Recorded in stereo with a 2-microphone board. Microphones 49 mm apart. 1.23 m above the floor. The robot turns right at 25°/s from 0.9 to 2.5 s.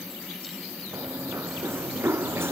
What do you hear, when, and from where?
0.9 s running footsteps: 60° right (ahead or behind); by 2.5 s 55° right (ahead or behind)